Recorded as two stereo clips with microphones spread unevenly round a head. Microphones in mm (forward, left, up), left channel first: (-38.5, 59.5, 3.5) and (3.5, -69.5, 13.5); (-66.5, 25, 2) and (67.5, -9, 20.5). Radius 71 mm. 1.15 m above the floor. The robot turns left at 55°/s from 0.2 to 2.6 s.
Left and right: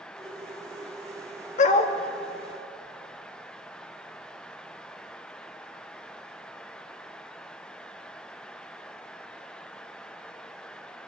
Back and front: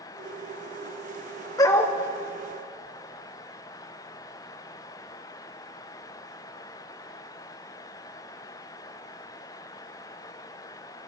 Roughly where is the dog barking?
Left.